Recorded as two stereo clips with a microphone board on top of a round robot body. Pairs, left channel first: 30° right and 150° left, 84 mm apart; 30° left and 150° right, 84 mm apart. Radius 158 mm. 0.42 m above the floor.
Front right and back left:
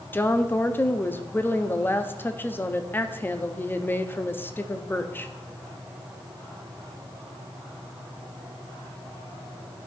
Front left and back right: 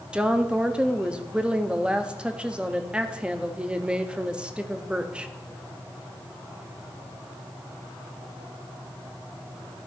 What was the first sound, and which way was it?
A woman speaking, 80° right.